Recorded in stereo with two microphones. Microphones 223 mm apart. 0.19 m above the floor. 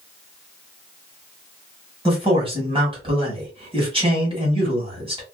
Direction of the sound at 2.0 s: 25° right (ahead or behind).